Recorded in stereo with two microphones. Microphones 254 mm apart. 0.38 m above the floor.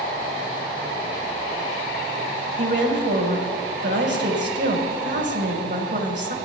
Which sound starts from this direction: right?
A woman speaking, at 2.6 s.